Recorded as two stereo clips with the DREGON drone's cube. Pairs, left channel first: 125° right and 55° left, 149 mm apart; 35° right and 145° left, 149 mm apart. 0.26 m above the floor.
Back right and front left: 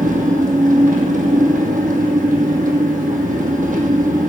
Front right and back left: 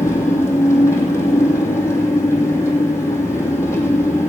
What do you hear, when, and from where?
0.0 s an engine running: 35° left, 3 m